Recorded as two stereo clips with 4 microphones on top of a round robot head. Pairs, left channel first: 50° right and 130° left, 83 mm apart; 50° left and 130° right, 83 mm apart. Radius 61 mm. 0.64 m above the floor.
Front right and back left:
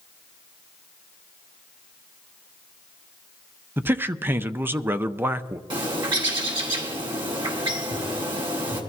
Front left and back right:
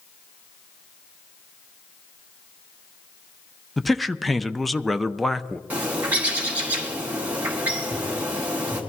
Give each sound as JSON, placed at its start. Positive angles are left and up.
{"t": 3.8, "sound": "a man speaking", "azimuth_deg": 140, "distance_m": 0.6}
{"t": 5.7, "sound": "a bird", "azimuth_deg": 160, "distance_m": 3.0}